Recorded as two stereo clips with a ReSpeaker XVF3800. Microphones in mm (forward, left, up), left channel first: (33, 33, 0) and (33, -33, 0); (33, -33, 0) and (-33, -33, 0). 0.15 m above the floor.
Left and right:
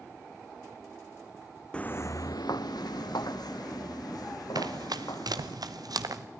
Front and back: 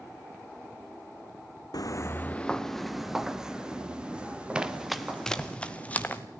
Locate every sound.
1.7 s footsteps: 15° left, 0.6 m; by 5.5 s 110° left, 4 m
4.5 s running footsteps: 105° right, 1.1 m; by 6.2 s 65° right, 2.0 m